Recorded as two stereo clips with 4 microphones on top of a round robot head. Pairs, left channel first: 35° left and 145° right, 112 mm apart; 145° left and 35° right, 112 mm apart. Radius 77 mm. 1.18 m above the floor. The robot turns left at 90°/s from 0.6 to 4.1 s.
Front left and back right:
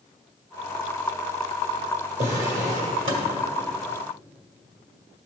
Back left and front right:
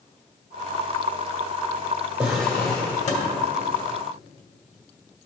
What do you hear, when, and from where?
2.2 s a drawer: 105° right, 1.9 m; by 3.3 s 150° left, 1.9 m